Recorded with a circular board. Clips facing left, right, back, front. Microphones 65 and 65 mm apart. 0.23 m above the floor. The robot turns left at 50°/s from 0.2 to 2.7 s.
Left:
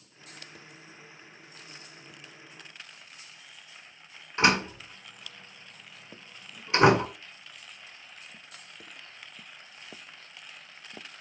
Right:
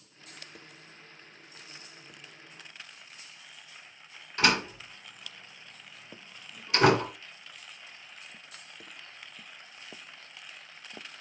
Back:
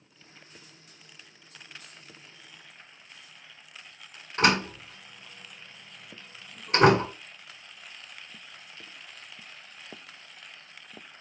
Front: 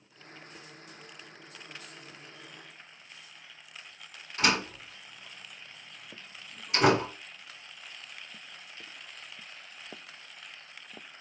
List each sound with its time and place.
4.4 s a door slam: 145° left, 1.9 m